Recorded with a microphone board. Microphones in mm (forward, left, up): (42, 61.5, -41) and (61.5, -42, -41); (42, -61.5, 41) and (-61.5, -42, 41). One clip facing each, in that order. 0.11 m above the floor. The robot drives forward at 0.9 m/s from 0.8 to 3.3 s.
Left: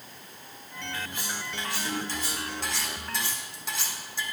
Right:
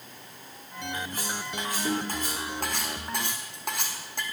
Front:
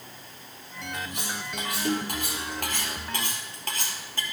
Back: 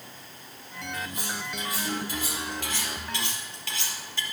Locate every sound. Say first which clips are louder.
0.9 s cutlery clinking: right 2 dB, even; 30° right, 4 m; by 4.2 s 55° right, 2.5 m